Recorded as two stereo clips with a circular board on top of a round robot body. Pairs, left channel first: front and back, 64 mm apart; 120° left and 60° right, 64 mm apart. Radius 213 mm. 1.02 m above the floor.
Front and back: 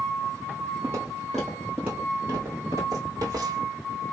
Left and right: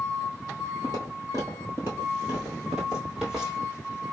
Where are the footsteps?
55° right, 1.1 m; by 3.7 s 145° right, 1.7 m.